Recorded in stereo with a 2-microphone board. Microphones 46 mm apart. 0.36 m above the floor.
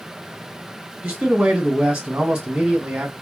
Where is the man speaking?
20° right (ahead or behind), 1.8 m.